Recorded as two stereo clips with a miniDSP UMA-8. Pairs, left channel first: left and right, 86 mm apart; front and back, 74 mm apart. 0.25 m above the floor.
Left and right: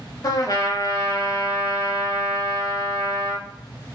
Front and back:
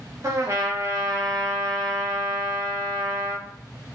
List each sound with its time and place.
0.2 s a trumpet: 135° left, 0.9 m